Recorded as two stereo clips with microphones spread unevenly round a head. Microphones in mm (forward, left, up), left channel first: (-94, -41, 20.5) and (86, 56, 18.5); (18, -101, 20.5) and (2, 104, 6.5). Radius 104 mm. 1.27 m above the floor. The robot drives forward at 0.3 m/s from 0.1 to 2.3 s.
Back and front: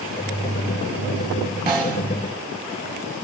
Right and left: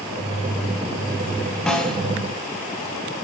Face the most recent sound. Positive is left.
turn(degrees=-15)